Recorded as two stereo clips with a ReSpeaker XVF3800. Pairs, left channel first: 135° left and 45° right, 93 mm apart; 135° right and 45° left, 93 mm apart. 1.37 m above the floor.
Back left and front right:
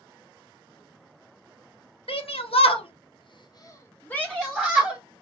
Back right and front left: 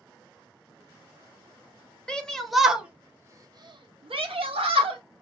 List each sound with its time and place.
2.1 s a shout: 145° left, 1.0 m; by 5.0 s 35° left, 1.1 m